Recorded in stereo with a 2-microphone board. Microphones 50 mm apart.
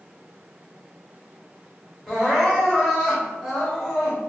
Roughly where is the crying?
Centre.